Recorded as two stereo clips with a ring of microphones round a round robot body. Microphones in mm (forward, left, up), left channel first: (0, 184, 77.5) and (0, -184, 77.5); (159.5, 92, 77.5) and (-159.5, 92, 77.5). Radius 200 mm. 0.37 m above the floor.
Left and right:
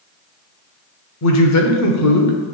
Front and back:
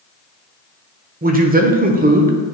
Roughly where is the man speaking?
Behind left.